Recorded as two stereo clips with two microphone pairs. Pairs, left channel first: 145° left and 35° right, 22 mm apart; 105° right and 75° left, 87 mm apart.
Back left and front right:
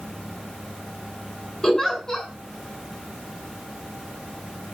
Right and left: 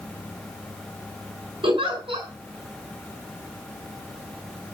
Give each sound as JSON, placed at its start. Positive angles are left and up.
{"t": 1.6, "sound": "a giggle", "azimuth_deg": 85, "distance_m": 6.0}